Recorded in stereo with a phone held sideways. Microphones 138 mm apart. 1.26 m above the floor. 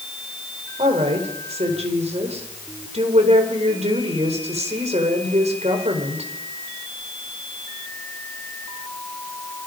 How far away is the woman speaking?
About 4.5 m.